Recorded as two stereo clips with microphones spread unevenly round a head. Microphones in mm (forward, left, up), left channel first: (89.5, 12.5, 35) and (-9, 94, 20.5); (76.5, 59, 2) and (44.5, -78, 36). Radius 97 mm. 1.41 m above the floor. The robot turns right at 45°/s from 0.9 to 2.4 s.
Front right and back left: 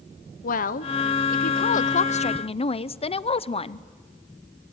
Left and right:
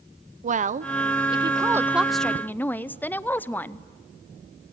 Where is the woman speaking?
60° right, 0.7 m; by 3.8 s 5° left, 0.7 m.